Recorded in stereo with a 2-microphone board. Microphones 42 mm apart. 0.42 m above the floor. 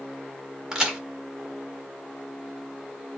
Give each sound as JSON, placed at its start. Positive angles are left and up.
{"t": 0.7, "sound": "a crack", "side_deg": -15, "distance_m": 1.5}